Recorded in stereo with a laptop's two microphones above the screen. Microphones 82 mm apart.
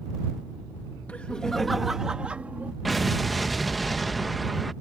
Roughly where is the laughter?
Centre.